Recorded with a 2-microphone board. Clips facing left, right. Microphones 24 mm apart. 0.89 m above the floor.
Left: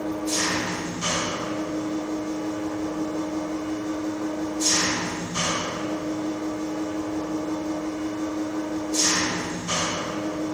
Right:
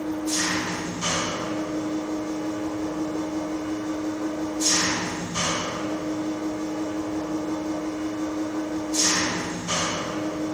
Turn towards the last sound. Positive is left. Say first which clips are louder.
# even
turn(degrees=5)  # may be behind; listen again after turning